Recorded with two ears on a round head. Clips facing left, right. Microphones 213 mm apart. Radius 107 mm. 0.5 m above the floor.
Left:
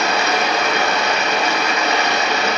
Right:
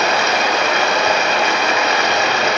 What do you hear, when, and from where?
0.0 s running water: 60° right (ahead or behind), 0.8 m